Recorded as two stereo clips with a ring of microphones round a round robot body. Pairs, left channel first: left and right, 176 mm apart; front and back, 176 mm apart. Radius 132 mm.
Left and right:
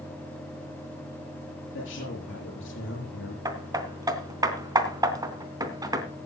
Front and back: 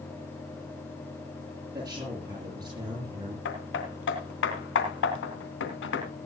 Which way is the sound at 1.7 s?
110° left.